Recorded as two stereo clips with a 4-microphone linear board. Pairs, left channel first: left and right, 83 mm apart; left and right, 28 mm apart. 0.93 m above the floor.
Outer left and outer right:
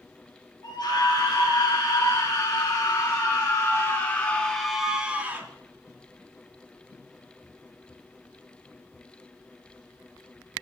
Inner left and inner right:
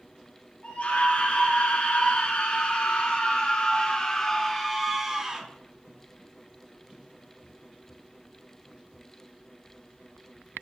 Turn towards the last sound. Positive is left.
turn(degrees=-25)  # may be behind; listen again after turning